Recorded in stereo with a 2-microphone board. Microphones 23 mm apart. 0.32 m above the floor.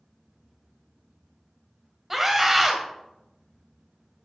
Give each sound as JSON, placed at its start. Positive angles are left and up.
{"t": 2.1, "sound": "a scream", "side_deg": -10, "distance_m": 1.6}